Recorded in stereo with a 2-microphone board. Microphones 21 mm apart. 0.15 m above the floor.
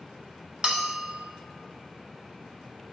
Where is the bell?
40° right (ahead or behind), 1.1 m.